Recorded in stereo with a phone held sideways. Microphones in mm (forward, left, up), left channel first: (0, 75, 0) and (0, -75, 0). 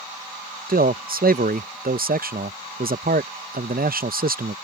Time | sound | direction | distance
0.7 | a man speaking | 75° right (ahead or behind) | ?